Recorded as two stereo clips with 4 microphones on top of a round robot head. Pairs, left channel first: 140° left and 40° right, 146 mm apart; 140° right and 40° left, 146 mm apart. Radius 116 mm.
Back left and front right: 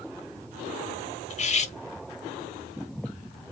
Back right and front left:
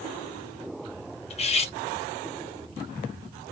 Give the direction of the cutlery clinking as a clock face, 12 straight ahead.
6 o'clock.